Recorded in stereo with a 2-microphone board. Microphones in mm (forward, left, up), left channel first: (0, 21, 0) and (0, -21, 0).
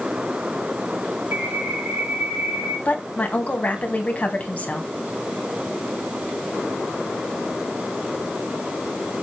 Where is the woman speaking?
35° left (ahead or behind), 2.5 m.